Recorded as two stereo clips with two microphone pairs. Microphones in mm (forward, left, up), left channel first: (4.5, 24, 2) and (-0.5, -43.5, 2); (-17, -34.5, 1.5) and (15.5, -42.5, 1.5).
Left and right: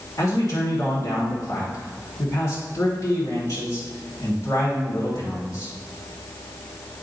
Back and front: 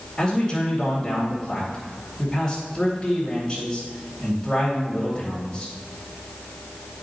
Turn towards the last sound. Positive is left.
turn(degrees=75)